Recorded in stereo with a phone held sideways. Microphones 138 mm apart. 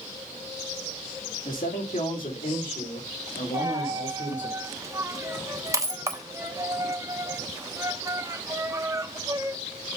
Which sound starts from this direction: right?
A dropped coin, at 3.5 s.